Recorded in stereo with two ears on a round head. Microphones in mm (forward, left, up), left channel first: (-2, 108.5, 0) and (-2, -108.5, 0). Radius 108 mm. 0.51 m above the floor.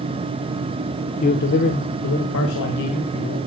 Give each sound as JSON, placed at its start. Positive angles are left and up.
{"t": 1.2, "sound": "a man speaking", "side_deg": 35, "distance_m": 0.9}